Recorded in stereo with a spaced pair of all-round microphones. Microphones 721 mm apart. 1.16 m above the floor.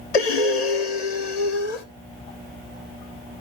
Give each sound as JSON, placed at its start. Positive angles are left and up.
{"t": 0.1, "sound": "breathing", "side_deg": 60, "distance_m": 1.2}